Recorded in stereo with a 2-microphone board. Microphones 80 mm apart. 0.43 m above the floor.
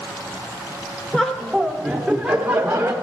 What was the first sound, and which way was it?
Laughter, 5° left (ahead or behind).